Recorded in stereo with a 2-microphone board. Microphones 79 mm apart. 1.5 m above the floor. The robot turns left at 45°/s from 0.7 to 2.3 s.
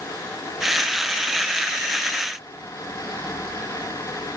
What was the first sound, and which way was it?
Only background noise.